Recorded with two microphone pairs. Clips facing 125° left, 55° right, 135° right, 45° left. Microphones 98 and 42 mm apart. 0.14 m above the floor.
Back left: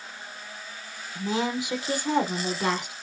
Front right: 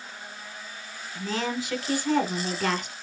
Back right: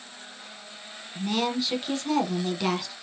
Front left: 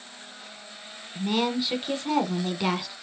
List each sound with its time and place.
1.1 s a woman speaking: 95° left, 1.1 m